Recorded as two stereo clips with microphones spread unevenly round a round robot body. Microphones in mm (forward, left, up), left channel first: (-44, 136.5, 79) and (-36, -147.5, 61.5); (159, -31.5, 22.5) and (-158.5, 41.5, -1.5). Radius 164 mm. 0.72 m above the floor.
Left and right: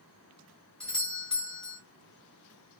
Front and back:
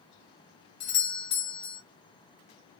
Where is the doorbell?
Straight ahead, 1.4 m.